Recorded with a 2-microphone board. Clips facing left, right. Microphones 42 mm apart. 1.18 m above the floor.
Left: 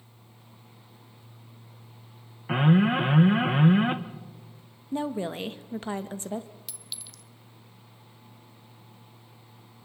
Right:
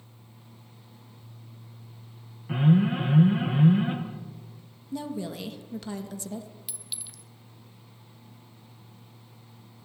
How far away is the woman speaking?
About 1.4 m.